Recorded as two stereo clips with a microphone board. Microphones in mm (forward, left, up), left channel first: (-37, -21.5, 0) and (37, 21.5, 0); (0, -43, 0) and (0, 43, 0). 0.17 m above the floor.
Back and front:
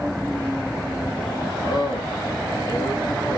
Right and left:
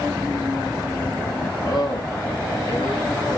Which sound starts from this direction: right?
A man speaking, at 1.6 s.